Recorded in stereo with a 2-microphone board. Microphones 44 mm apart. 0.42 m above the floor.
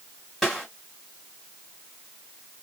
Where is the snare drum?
Centre (ahead or behind), 1.8 m.